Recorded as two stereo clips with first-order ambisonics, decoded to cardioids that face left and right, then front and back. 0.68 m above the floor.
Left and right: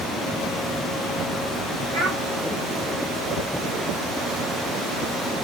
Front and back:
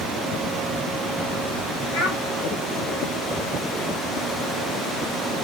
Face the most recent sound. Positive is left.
turn(degrees=-25)